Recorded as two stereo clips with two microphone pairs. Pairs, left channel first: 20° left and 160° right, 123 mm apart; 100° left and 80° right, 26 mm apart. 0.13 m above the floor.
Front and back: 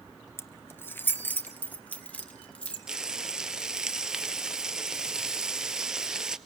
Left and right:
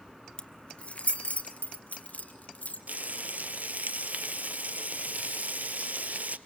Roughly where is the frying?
Right.